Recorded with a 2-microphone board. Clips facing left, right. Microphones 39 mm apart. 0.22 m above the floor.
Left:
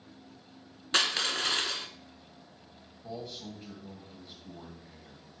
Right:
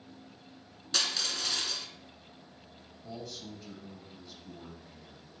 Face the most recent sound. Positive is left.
turn(degrees=30)  # may be behind; listen again after turning